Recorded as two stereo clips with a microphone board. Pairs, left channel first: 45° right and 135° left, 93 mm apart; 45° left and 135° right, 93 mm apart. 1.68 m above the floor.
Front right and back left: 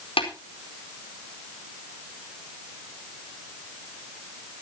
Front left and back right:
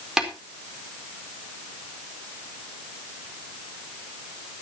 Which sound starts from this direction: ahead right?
Tapping, at 0.2 s.